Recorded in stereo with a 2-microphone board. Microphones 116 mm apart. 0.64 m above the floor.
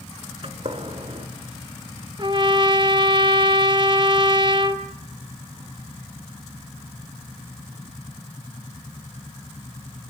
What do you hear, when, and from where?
0.4 s a gunshot: 50° right (ahead or behind), 1.7 m
2.2 s a trumpet: 40° right (ahead or behind), 1.1 m